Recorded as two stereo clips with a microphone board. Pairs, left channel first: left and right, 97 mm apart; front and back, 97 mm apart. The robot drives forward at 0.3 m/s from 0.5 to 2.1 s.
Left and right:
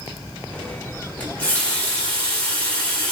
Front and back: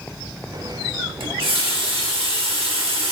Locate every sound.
1.2 s a running tap: 165° left, 0.9 m; by 3.1 s 170° left, 1.1 m